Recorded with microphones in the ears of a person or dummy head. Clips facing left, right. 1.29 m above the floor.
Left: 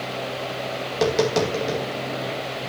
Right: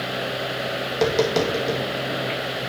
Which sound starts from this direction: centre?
Tapping, at 0.9 s.